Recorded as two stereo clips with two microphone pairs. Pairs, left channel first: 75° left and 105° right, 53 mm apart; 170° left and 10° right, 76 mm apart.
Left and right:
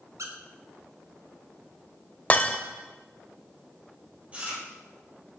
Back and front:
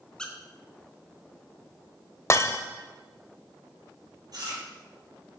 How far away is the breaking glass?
About 0.7 m.